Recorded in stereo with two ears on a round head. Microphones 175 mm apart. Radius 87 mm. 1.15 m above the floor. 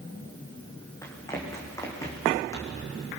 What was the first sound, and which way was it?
Running footsteps, 15° left (ahead or behind).